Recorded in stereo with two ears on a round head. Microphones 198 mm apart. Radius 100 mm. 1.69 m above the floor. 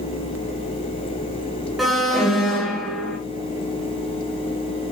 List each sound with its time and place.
1.8 s an alarm: centre (ahead or behind), 2.5 m